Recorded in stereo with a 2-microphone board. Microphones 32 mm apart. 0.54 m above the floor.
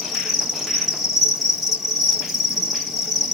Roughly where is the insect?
Centre.